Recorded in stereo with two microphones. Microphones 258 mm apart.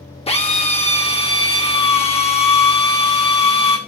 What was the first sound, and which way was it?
A drill, 25° left (ahead or behind).